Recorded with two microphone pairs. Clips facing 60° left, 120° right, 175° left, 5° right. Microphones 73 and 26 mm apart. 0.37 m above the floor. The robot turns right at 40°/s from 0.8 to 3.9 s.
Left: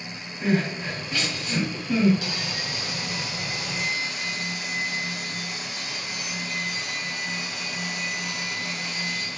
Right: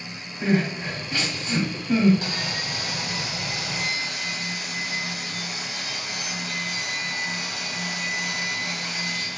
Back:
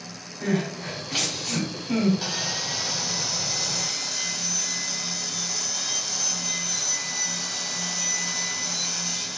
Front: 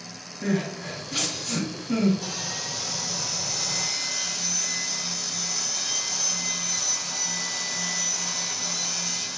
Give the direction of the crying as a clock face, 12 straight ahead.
7 o'clock.